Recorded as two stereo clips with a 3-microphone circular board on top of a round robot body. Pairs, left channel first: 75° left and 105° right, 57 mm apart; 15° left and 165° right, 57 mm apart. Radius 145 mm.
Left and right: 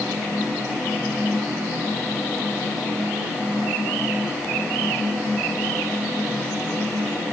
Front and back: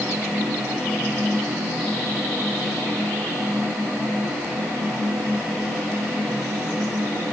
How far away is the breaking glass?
No breaking glass in this recording.